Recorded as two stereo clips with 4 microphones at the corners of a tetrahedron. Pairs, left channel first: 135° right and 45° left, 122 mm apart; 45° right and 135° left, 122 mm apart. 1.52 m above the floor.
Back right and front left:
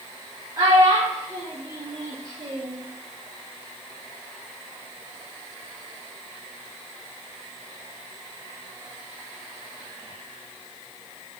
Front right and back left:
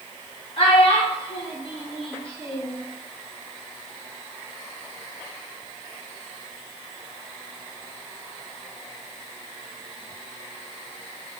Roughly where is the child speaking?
Ahead.